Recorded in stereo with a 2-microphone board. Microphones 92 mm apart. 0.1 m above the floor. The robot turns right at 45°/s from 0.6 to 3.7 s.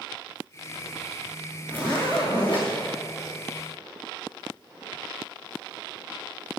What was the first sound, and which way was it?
A zipper, 20° left.